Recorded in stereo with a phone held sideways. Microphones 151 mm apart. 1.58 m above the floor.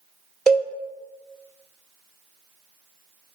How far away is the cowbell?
About 1.5 m.